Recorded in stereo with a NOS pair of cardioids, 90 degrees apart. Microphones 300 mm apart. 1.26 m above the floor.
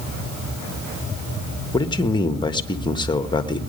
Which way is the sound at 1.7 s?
15° left.